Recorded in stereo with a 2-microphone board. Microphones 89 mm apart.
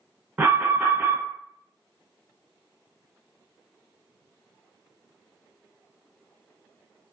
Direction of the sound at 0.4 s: 15° right (ahead or behind).